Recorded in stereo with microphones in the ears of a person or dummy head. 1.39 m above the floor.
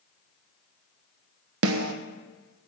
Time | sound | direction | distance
1.6 | a snare drum | 75° right (ahead or behind) | 0.9 m